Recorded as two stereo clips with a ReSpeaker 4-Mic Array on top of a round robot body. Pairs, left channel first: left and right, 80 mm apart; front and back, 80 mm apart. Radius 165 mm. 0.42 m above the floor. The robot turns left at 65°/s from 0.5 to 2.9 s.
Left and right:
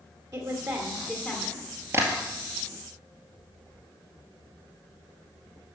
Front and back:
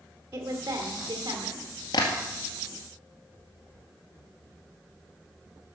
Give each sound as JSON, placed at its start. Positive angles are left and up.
{"t": 0.3, "sound": "a woman speaking", "azimuth_deg": -120, "distance_m": 2.0}
{"t": 1.9, "sound": "tapping", "azimuth_deg": -25, "distance_m": 1.9}